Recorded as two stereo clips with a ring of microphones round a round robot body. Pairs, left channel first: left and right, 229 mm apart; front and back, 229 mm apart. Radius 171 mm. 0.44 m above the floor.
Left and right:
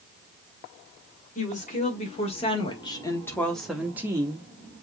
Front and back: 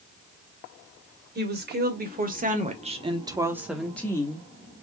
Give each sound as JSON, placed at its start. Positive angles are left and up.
{"t": 1.4, "sound": "a woman speaking", "azimuth_deg": 145, "distance_m": 2.5}